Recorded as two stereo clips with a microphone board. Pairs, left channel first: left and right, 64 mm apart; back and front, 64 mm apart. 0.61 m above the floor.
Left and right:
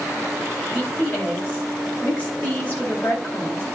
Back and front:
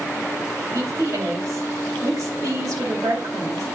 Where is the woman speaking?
25° left, 4 m.